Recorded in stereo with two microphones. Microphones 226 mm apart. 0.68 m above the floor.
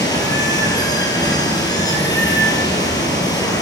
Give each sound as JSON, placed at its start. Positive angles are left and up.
{"t": 0.0, "sound": "running water", "side_deg": 15, "distance_m": 7.0}